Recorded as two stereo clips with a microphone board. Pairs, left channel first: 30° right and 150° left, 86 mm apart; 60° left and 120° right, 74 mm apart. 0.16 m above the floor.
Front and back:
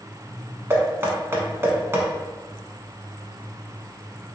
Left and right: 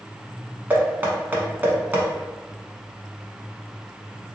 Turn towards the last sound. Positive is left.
turn(degrees=-170)